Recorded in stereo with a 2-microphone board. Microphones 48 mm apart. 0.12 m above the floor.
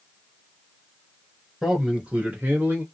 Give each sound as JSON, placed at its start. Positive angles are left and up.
{"t": 1.6, "sound": "a man speaking", "side_deg": -10, "distance_m": 1.4}